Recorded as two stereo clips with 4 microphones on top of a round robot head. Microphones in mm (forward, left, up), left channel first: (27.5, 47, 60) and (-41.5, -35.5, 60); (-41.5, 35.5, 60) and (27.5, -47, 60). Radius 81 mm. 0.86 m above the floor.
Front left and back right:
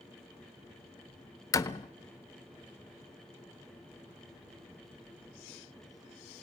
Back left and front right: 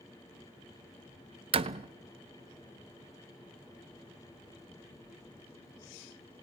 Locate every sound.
1.5 s a door slam: 10° right, 0.6 m